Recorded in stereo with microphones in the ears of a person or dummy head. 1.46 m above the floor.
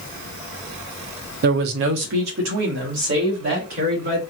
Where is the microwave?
I don't hear a microwave.